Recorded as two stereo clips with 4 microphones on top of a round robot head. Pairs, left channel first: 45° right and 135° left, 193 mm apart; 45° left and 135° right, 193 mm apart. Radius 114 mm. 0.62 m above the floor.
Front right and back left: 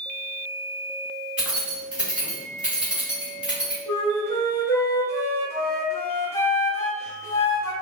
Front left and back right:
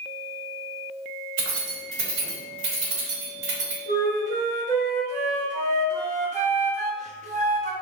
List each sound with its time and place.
1.4 s keys jangling: 140° right, 1.3 m
3.9 s a flute: 115° right, 0.9 m